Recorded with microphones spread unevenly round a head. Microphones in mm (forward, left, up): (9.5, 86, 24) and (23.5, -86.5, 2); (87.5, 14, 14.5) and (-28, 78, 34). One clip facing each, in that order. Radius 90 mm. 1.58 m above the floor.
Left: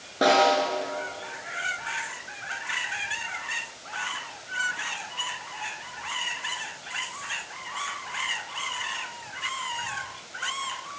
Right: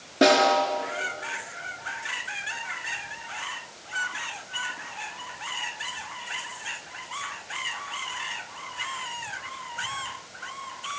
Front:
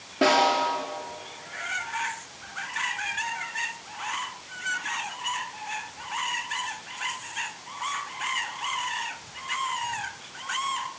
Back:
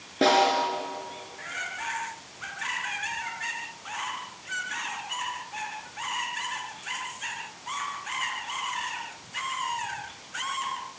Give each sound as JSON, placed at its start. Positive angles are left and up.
{"t": 0.2, "sound": "a snare drum", "azimuth_deg": -150, "distance_m": 4.0}